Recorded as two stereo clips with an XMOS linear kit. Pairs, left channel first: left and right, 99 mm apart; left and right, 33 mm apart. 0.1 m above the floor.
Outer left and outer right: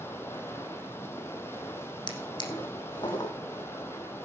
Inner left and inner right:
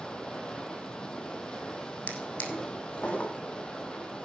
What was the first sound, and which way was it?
Running water, 25° left (ahead or behind).